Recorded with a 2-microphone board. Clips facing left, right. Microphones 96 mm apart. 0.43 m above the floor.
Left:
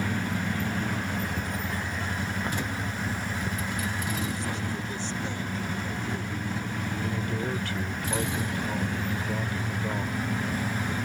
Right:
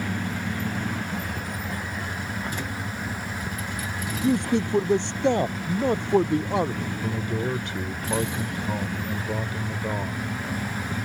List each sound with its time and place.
4.2 s a man speaking: 60° right (ahead or behind); by 6.9 s 65° right (ahead or behind)
7.0 s a man speaking: 25° right (ahead or behind)